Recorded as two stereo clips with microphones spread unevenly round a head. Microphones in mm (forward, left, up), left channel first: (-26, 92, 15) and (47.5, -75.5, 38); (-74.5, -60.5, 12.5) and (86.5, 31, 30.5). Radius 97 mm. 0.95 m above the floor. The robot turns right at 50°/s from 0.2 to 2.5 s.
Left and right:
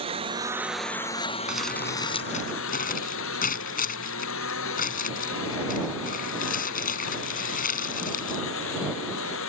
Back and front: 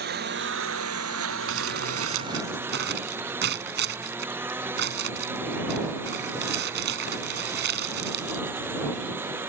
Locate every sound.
0.0 s a lawn mower: 5° right; by 9.5 s 110° left
1.5 s crumpling: 15° left; by 8.4 s 70° left